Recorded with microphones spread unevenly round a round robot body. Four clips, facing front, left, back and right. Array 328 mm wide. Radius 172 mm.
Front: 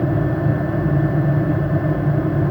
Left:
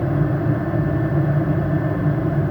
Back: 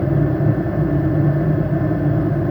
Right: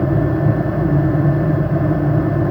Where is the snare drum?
I don't hear a snare drum.